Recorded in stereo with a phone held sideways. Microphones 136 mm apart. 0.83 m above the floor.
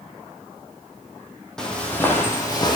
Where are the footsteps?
5° left (ahead or behind), 1.5 m; by 2.8 s 30° left (ahead or behind), 1.4 m.